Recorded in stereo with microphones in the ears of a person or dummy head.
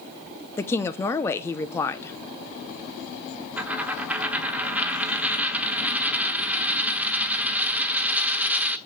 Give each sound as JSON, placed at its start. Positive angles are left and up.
{"t": 0.6, "sound": "a woman speaking", "side_deg": 15, "distance_m": 0.6}
{"t": 3.6, "sound": "a dropped coin", "side_deg": -10, "distance_m": 1.1}